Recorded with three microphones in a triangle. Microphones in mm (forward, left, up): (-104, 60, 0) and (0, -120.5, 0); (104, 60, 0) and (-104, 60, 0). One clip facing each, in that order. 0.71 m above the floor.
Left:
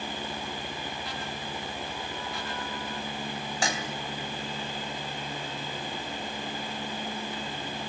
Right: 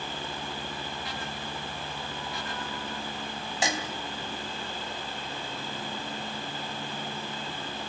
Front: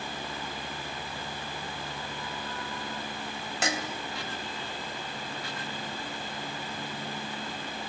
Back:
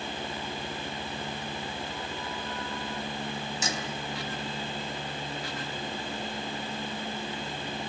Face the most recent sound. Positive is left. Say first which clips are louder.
# right 2 dB, front 6 dB
turn(degrees=10)